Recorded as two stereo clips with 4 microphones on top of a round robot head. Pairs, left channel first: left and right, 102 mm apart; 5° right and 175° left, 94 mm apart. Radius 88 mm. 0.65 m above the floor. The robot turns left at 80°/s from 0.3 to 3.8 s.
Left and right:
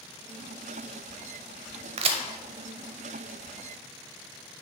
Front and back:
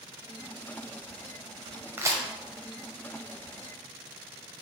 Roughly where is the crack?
Right.